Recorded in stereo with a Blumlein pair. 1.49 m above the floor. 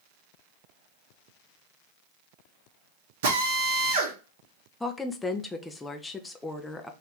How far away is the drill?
About 1.3 m.